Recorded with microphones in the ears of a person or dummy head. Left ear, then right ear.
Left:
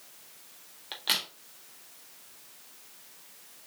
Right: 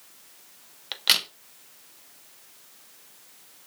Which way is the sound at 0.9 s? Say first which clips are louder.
Right 7 dB; 25° right (ahead or behind).